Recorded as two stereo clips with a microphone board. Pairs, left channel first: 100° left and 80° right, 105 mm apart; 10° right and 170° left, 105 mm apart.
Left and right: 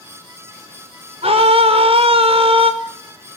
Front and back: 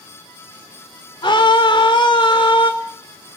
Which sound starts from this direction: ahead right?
A scream, at 1.2 s.